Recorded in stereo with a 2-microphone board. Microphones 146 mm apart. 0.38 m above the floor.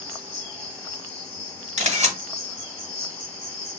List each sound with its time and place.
0.0 s an insect: 15° left (ahead or behind), 1.7 m
1.8 s a camera shutter: 50° right (ahead or behind), 1.0 m